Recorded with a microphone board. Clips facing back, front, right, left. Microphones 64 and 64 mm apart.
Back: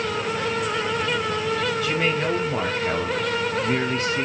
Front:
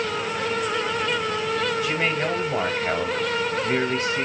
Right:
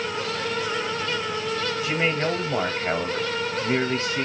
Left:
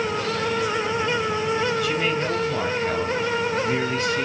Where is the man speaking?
75° right, 1.1 m.